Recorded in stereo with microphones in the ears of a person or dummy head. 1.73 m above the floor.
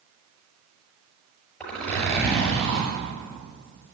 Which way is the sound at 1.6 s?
5° left (ahead or behind).